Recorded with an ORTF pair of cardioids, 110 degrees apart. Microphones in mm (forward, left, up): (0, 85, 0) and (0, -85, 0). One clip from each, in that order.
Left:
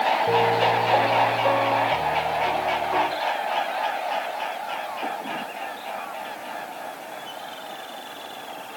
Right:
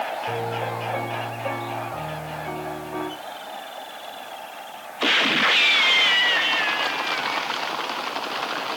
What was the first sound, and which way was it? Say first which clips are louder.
A piano: left 8 dB; 50° left.